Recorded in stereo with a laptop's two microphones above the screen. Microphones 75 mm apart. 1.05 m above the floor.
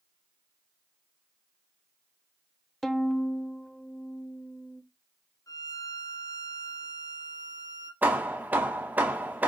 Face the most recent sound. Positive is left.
turn(degrees=-25)  # may be behind; listen again after turning